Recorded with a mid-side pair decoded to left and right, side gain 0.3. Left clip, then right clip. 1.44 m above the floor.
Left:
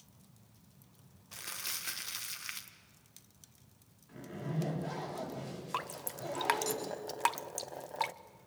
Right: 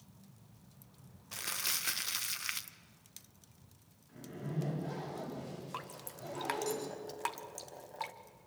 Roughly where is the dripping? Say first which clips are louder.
Left 10 dB; ahead left.